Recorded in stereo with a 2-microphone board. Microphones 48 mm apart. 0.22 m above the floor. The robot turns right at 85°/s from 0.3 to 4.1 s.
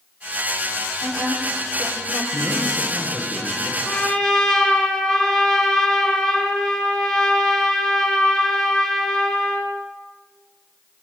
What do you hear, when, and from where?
1.0 s a woman speaking: 15° right, 7.5 m; by 2.2 s 90° left, 7.5 m
2.3 s a man speaking: 145° left, 9.5 m; by 3.8 s 95° right, 9.5 m
3.9 s a trumpet: 20° left (ahead or behind), 5.5 m; by 9.7 s centre (ahead or behind), 5.5 m